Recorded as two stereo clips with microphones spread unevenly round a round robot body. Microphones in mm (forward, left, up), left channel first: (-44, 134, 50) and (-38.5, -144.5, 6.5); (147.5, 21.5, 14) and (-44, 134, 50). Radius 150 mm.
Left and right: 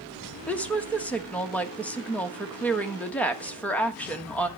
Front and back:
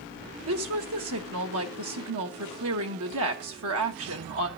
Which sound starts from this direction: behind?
A woman speaking, at 0.5 s.